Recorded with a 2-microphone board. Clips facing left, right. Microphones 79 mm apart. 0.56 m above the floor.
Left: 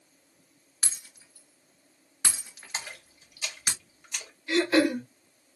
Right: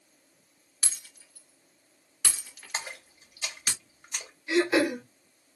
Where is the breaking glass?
25° left (ahead or behind), 1.6 m.